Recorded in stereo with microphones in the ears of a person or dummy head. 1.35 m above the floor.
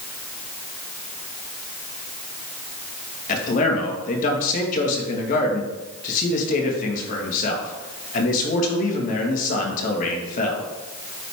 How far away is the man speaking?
About 1.8 m.